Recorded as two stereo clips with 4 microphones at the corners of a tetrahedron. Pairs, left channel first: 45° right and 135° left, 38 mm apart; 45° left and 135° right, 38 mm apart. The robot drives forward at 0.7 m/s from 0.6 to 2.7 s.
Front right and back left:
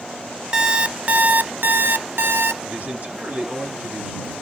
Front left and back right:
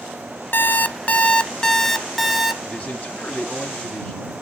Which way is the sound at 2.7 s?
95° left.